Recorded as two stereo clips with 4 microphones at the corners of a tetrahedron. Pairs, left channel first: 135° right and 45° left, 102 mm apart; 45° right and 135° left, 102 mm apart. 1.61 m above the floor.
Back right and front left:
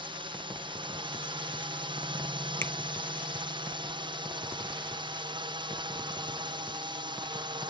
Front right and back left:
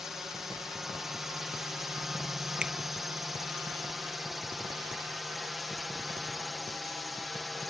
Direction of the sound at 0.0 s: 50° left.